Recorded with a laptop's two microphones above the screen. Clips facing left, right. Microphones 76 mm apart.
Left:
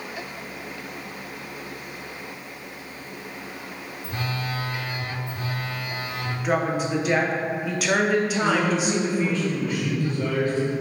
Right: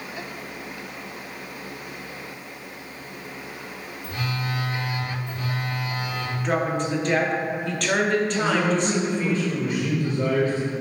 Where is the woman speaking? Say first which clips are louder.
Left 1 dB; 5° left (ahead or behind), 0.5 m.